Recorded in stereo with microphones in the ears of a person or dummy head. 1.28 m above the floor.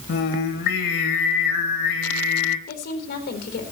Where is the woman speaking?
60° left (ahead or behind), 4 m.